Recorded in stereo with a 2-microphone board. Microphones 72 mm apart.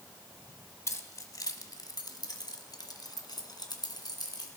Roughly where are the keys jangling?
Left.